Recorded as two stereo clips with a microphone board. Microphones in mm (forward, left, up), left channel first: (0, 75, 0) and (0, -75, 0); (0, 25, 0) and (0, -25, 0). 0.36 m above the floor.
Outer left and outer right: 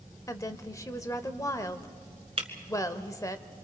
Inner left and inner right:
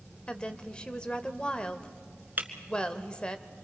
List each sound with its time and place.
0.3 s a woman speaking: 20° left (ahead or behind), 1.0 m
2.4 s breaking glass: 40° right (ahead or behind), 1.7 m